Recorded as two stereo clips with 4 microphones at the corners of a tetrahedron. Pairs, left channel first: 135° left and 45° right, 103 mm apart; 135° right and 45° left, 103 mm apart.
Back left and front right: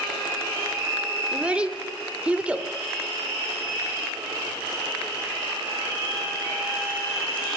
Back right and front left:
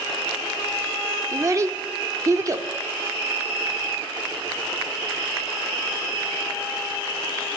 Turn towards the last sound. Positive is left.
turn(degrees=20)